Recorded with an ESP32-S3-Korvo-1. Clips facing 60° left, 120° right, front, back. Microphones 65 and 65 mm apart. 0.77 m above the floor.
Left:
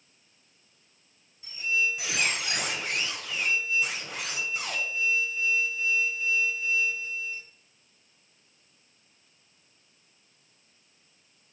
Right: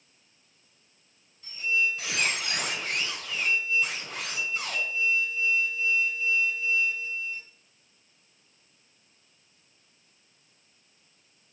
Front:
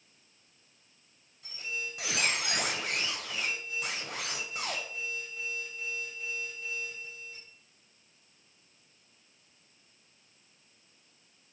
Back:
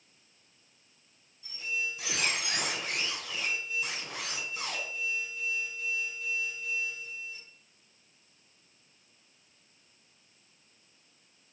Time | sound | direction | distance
1.4 | a squeak | 20° right | 2.5 m